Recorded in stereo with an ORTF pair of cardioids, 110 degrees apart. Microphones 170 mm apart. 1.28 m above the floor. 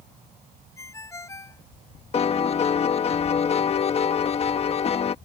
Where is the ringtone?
20° left.